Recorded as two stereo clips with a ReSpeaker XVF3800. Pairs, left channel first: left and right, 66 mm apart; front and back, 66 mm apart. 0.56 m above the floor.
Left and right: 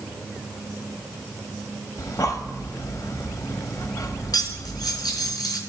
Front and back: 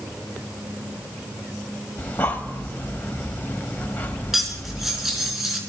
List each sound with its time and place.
2.0 s breathing: 60° left, 1.5 m
4.3 s cutlery clinking: 95° left, 4 m